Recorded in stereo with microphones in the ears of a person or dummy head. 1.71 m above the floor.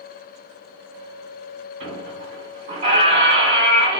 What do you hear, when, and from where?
1.8 s a squeak: 35° right (ahead or behind), 2 m